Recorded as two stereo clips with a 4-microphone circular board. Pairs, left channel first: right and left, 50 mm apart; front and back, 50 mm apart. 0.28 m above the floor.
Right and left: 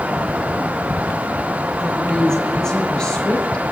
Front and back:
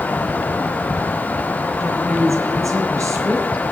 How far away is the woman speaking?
About 4.5 m.